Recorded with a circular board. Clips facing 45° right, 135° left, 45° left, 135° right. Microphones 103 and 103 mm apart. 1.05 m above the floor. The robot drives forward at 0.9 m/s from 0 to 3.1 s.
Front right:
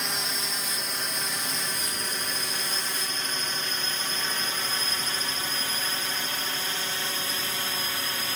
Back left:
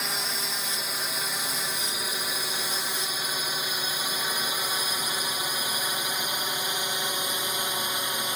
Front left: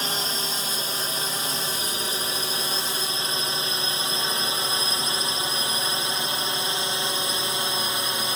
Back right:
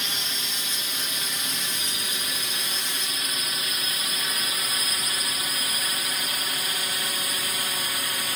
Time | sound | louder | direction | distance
0.0 | a drone | even, front left 5 dB | 50° left | ?